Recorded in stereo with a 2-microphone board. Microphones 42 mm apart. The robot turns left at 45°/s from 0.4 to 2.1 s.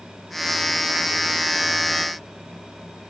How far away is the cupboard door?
I don't hear a cupboard door.